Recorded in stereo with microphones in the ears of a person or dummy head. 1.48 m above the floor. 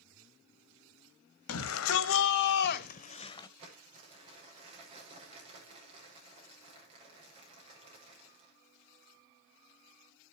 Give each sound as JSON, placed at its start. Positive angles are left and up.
{"t": 1.5, "sound": "a shout", "side_deg": 80, "distance_m": 1.9}
{"t": 3.6, "sound": "crumpling", "side_deg": -35, "distance_m": 6.0}